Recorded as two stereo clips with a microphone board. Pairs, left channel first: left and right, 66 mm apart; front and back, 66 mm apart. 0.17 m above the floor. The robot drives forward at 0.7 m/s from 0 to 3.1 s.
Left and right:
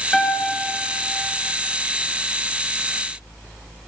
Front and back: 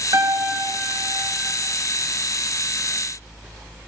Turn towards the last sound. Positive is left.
turn(degrees=175)